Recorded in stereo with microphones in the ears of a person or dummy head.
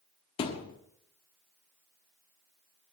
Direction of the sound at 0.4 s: 30° left (ahead or behind).